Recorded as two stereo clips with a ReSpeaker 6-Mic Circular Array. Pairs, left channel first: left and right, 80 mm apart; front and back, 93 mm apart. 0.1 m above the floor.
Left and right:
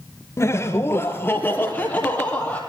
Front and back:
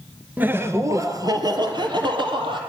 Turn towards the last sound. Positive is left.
turn(degrees=160)